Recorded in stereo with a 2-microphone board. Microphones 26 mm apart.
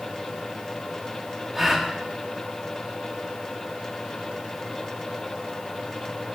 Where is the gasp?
10° right (ahead or behind), 1.0 m.